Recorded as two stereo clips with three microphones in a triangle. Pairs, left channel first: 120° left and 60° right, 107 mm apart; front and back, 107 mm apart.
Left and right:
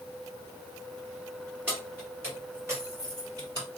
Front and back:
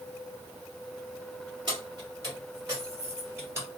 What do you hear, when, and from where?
1.7 s keys jangling: 135° right, 2.5 m; by 3.7 s 115° right, 3.5 m